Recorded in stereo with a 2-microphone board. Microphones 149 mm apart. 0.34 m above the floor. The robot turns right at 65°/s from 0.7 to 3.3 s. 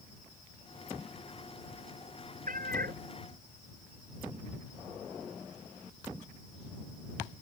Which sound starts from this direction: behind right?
A cat meowing, at 2.5 s.